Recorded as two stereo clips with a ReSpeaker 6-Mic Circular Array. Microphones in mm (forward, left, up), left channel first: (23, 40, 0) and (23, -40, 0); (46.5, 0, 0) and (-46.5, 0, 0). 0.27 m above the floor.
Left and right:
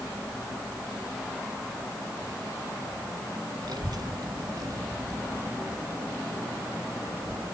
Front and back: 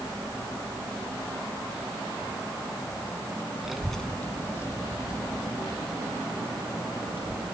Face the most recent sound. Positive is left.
turn(degrees=-15)